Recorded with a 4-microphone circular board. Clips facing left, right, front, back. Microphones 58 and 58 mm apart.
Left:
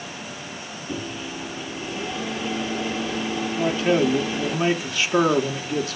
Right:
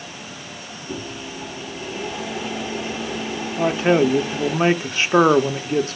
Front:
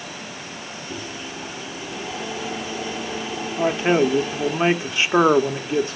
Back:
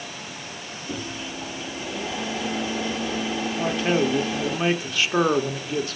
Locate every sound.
0.9 s a microwave: 170° right, 7.5 m
3.6 s a man speaking: 50° right, 0.9 m